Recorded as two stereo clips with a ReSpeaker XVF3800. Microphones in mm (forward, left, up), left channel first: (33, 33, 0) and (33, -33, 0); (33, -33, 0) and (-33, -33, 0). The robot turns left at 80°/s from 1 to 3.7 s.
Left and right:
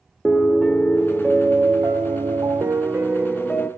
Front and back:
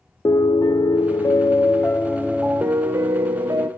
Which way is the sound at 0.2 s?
10° left.